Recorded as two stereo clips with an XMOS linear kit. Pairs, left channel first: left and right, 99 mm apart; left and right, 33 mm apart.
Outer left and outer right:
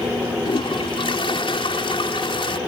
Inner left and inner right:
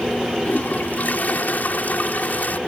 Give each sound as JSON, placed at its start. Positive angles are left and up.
{"t": 0.5, "sound": "a toilet flushing", "side_deg": 60}